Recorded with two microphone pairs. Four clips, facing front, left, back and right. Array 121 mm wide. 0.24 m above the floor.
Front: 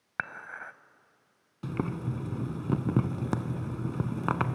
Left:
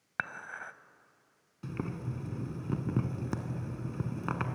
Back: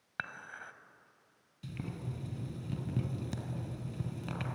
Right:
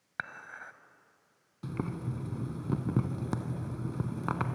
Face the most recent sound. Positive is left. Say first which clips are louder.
# right 2 dB, front 10 dB
turn(degrees=-5)